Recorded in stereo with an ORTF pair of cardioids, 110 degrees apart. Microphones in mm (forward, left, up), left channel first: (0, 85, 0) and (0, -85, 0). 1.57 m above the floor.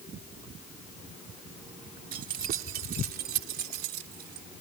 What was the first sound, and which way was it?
Keys jangling, 60° right.